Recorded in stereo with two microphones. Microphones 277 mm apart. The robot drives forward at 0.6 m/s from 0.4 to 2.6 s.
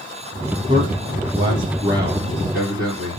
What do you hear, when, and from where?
0.7 s a man speaking: 20° right (ahead or behind), 3.5 m; by 3.2 s 15° right (ahead or behind), 4.5 m